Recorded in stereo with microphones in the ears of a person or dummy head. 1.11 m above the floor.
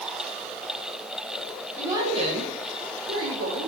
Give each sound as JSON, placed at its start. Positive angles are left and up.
{"t": 1.8, "sound": "a woman speaking", "side_deg": -10, "distance_m": 1.4}